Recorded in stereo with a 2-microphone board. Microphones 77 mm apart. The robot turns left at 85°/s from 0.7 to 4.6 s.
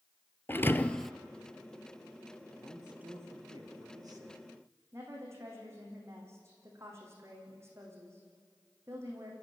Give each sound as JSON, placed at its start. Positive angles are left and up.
{"t": 0.5, "sound": "a thud", "azimuth_deg": 30, "distance_m": 0.8}
{"t": 2.6, "sound": "a man speaking", "azimuth_deg": 10, "distance_m": 3.0}
{"t": 4.9, "sound": "a woman speaking", "side_deg": -35, "distance_m": 7.0}